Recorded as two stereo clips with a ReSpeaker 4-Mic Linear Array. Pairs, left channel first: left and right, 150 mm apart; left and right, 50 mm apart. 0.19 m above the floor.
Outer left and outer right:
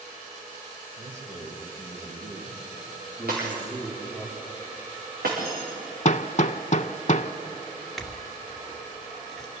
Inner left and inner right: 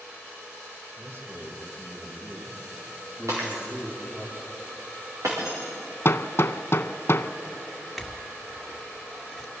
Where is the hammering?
55° left (ahead or behind), 0.6 m.